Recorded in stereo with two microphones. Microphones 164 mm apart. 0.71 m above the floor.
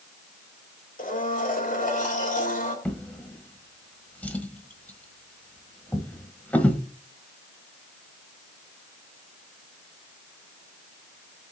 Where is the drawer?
10° left (ahead or behind), 1.2 m.